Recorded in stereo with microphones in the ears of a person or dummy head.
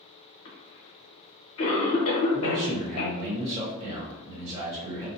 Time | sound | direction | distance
0.5 | a cough | 75° left (ahead or behind) | 1.3 m
2.3 | a man speaking | 30° right (ahead or behind) | 1.2 m